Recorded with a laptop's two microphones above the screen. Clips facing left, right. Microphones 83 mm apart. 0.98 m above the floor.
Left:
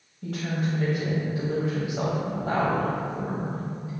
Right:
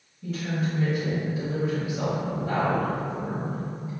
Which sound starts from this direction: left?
A woman speaking, at 0.2 s.